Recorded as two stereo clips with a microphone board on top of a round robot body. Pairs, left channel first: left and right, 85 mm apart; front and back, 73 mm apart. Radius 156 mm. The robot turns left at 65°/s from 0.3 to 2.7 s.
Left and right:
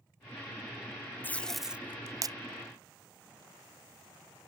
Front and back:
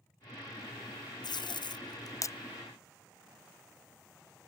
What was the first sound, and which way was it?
Tape being pulled, 20° left.